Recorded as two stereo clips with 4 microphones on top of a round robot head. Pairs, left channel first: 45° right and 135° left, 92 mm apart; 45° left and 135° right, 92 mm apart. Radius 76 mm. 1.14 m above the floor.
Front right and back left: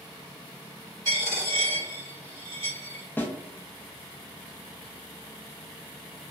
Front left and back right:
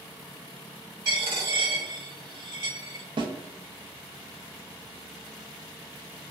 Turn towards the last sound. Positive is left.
turn(degrees=-115)